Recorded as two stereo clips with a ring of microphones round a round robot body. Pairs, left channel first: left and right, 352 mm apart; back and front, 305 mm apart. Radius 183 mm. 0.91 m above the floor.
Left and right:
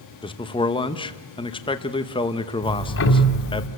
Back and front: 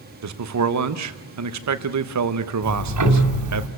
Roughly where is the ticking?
Ahead left.